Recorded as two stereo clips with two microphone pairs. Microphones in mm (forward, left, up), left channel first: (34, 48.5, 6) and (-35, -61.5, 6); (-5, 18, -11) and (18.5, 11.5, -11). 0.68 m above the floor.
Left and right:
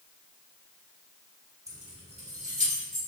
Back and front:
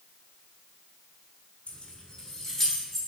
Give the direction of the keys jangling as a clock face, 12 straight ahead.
6 o'clock.